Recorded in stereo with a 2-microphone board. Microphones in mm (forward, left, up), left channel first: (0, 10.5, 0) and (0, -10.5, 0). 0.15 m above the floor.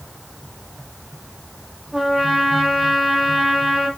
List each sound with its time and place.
1.9 s a trumpet: 10° right (ahead or behind), 2.5 m